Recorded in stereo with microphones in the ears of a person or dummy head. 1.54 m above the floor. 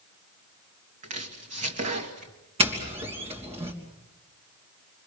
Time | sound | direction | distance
1.0 | chopping | 35° right (ahead or behind) | 2 m
2.6 | a doorbell | 30° right (ahead or behind) | 3 m